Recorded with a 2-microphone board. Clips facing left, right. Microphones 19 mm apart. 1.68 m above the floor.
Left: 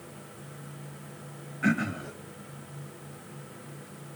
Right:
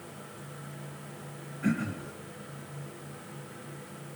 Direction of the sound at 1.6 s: 45° left (ahead or behind).